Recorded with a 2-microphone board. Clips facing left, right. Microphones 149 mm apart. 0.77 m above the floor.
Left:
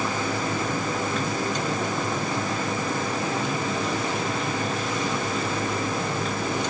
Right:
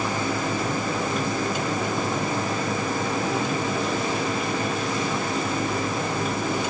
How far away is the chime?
No chime in this recording.